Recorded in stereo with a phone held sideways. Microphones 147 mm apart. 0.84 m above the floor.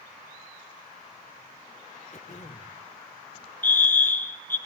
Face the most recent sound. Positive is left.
turn(degrees=15)  # may be behind; listen again after turning